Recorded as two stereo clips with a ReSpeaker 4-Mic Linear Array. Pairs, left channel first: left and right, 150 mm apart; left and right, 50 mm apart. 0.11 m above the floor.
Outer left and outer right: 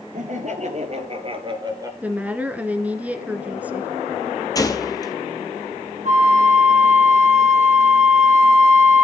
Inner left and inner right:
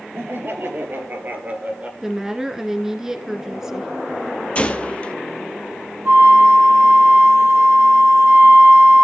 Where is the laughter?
55° right (ahead or behind), 2 m; by 1.9 s 25° right (ahead or behind), 1.5 m.